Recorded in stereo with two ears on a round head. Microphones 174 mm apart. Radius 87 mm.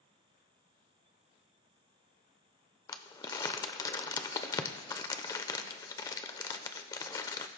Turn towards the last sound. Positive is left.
turn(degrees=20)  # may be behind; listen again after turning